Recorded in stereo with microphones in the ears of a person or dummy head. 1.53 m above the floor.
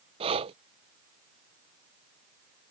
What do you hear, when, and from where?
0.2 s breathing: 25° right (ahead or behind)